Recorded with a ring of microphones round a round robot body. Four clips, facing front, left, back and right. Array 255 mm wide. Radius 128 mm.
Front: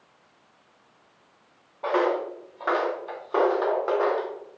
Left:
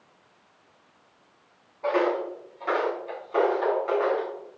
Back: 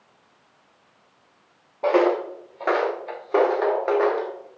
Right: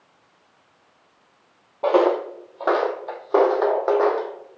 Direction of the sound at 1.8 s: 125° right.